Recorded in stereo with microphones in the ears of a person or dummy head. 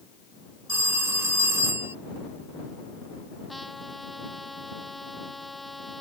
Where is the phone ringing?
15° right (ahead or behind).